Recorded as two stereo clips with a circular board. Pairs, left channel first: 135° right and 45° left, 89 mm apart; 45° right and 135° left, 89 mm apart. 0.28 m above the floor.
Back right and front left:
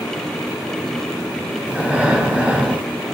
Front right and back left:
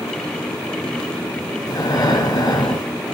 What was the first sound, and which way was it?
Breathing, 25° right.